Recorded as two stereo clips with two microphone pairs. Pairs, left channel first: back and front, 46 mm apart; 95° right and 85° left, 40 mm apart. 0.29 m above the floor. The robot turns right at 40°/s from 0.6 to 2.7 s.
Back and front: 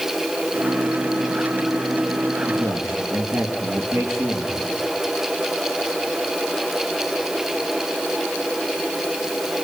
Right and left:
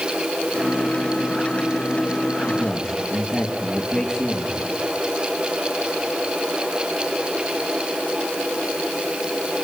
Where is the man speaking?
30° right, 6 m; by 4.6 s 20° right, 6 m.